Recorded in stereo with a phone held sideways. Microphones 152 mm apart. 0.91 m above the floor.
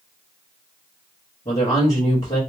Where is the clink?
I don't hear a clink.